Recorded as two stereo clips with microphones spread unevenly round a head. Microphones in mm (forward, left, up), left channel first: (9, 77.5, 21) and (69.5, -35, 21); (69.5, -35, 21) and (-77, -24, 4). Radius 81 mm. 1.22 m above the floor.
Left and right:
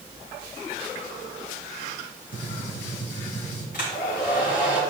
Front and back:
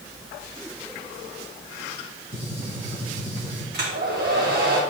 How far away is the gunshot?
About 4 m.